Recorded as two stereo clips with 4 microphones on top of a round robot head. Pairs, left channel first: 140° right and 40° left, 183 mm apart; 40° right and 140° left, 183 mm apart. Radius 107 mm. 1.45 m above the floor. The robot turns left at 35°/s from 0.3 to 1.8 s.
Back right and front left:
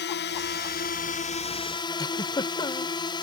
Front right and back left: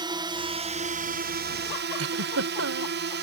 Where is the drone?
155° right; by 3.2 s 155° left.